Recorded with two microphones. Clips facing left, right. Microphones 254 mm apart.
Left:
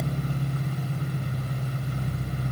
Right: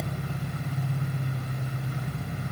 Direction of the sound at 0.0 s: 65° left (ahead or behind).